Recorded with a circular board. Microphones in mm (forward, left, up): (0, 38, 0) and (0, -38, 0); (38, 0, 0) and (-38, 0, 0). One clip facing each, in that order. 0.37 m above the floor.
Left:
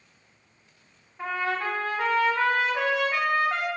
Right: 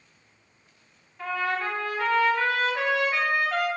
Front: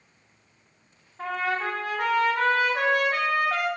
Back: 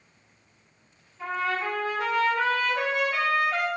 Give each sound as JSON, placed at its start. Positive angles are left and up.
{"t": 1.2, "sound": "a trumpet", "azimuth_deg": 25, "distance_m": 0.6}